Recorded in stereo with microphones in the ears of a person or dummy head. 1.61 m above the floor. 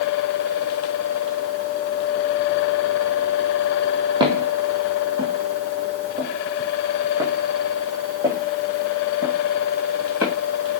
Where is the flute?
I don't hear a flute.